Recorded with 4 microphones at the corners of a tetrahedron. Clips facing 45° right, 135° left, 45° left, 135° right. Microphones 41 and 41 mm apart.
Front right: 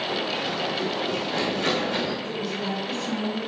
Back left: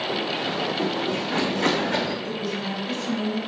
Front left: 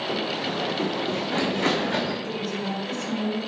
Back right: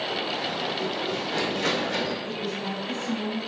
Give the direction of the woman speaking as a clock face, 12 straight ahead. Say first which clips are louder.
Even, front left 2 dB; 10 o'clock.